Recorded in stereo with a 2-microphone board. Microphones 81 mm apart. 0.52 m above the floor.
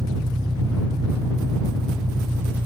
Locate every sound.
0.0 s an engine running: 50° right (ahead or behind)